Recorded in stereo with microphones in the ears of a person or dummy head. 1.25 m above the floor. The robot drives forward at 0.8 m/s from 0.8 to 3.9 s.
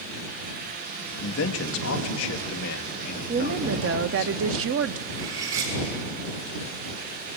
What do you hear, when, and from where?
1.2 s a man speaking: 80° left, 1.8 m; by 4.3 s 45° left (ahead or behind), 2.5 m
3.3 s a woman speaking: 45° right (ahead or behind), 0.6 m; by 5.0 s 70° right (ahead or behind), 0.5 m
5.1 s cutlery clinking: 75° right (ahead or behind), 6 m